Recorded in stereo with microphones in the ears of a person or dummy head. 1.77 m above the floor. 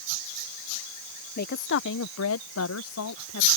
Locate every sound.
1.4 s a woman speaking: 40° left (ahead or behind); by 3.5 s 85° left